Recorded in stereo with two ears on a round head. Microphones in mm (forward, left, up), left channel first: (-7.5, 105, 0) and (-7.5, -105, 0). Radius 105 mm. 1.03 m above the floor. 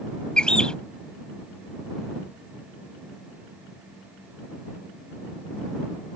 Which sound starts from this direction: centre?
A bird, at 0.4 s.